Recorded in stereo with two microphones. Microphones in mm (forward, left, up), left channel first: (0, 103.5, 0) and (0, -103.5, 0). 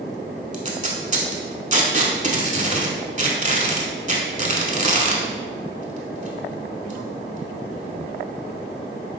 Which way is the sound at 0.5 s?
35° right (ahead or behind).